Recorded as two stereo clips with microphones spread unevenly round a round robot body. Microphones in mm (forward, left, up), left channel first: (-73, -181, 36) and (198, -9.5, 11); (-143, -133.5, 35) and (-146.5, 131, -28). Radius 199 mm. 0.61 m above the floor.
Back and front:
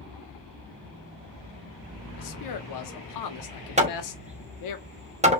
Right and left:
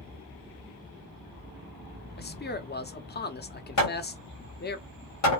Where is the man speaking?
150° right, 1.1 m.